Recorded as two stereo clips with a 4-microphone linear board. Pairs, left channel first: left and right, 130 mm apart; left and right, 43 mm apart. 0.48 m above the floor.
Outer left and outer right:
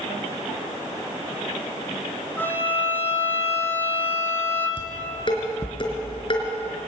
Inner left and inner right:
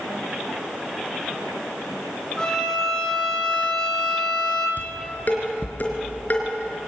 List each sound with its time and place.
2.4 s a violin: 15° left (ahead or behind), 4.5 m
4.8 s dishes clattering: 40° left (ahead or behind), 4 m